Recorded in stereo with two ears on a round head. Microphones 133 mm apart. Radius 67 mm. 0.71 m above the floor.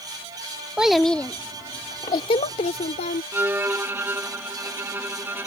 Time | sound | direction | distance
0.8 | a child speaking | 5° right (ahead or behind) | ?
3.3 | a violin | 15° right (ahead or behind) | ?